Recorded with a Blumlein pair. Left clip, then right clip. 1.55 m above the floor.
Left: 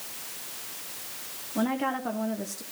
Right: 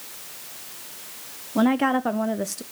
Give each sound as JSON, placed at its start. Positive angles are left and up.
{"t": 1.6, "sound": "a woman speaking", "azimuth_deg": -25, "distance_m": 0.6}